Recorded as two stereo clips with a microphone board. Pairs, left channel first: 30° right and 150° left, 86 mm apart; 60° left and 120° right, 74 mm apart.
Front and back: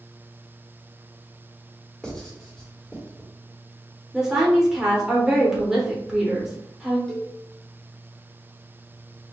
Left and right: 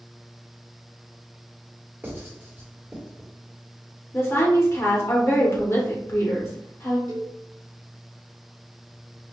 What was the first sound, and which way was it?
Writing, 105° right.